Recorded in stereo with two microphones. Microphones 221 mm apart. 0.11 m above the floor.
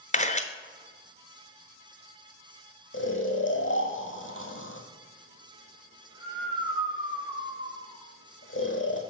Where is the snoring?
70° left (ahead or behind), 1.5 m.